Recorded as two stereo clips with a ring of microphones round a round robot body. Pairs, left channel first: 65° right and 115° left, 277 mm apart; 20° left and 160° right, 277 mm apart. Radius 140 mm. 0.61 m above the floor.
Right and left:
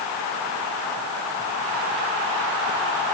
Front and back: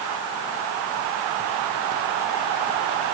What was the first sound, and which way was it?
Only background noise.